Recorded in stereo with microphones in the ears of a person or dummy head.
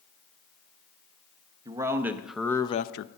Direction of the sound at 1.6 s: 10° right (ahead or behind).